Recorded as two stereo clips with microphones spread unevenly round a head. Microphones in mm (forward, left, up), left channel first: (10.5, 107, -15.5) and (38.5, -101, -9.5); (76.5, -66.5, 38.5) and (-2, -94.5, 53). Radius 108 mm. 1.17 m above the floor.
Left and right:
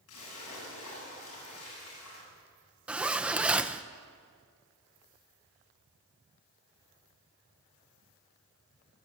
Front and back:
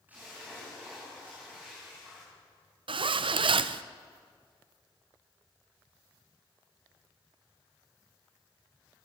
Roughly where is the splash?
Behind left.